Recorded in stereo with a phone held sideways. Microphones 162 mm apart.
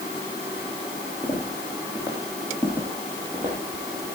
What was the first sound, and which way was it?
Footsteps, 15° right (ahead or behind).